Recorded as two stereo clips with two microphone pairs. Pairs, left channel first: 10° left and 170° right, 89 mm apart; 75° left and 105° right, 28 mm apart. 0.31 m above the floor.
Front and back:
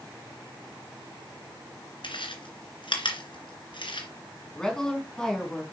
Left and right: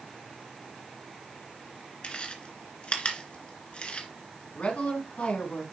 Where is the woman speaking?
90° left, 3.5 m.